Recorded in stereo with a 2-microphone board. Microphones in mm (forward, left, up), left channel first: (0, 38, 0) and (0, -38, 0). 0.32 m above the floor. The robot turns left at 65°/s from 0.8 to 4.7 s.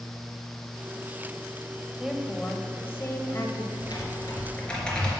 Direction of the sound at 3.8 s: 70° left.